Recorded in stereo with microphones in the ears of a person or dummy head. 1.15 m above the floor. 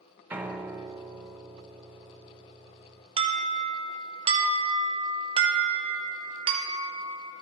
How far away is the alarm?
About 0.7 m.